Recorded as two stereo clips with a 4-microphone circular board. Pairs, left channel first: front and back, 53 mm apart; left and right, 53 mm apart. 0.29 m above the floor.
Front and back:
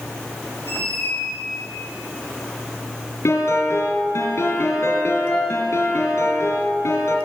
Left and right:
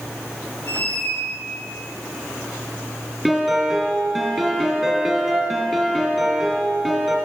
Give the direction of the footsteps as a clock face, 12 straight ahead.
I don't hear footsteps.